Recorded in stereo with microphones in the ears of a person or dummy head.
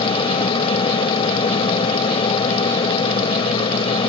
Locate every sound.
0.0 s an aircraft: 30° left (ahead or behind)